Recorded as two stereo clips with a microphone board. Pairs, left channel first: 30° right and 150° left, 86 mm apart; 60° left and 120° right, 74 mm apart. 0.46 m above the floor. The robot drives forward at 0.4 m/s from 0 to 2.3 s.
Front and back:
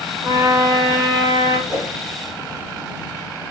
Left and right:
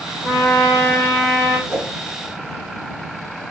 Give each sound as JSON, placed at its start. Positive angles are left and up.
{"t": 0.2, "sound": "a trumpet", "azimuth_deg": 120, "distance_m": 1.5}
{"t": 1.7, "sound": "a whoosh", "azimuth_deg": 180, "distance_m": 1.4}